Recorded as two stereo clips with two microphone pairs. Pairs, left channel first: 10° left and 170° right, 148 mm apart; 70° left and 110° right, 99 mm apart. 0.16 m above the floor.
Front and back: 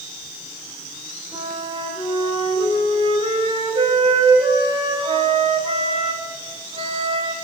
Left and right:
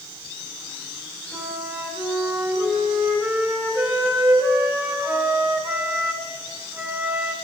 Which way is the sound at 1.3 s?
150° right.